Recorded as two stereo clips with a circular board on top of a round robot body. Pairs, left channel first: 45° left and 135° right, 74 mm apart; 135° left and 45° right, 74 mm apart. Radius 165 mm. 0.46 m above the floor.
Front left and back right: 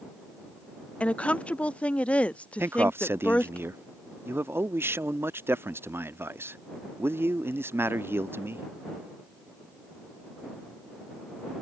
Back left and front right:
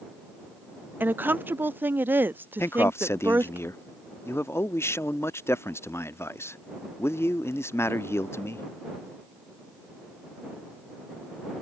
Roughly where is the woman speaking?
Ahead.